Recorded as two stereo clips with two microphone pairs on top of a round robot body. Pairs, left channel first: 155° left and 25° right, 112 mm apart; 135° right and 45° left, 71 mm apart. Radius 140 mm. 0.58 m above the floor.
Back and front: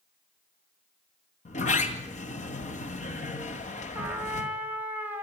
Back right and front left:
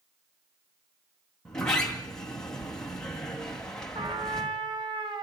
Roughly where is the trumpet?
Ahead left.